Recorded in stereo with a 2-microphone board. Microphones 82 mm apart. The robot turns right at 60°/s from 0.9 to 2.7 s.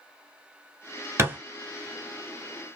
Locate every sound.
1.2 s a thud: 30° right (ahead or behind), 1.0 m; by 1.4 s 20° right (ahead or behind), 1.0 m